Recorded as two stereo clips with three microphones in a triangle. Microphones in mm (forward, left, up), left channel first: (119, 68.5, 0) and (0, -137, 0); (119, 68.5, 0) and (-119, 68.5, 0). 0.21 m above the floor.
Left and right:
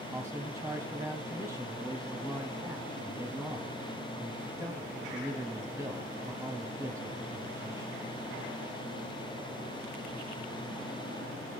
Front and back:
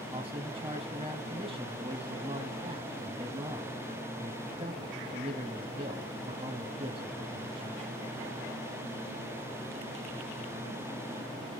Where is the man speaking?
175° right, 1.3 m.